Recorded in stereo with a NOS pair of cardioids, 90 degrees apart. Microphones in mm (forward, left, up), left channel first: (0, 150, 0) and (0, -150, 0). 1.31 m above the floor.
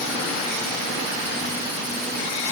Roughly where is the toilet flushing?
I don't hear a toilet flushing.